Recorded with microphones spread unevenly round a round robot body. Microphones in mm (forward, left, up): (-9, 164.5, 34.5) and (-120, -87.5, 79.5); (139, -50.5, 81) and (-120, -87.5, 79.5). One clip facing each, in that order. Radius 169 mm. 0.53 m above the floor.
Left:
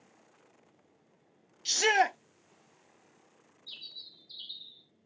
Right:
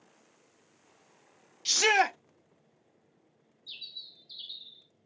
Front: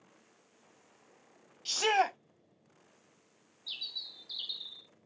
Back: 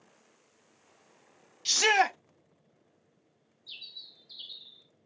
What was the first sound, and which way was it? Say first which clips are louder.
A shout: even, back 2 dB; 160° left.